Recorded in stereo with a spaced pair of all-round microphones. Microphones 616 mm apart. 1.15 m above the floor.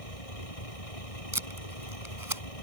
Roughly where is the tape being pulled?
Right.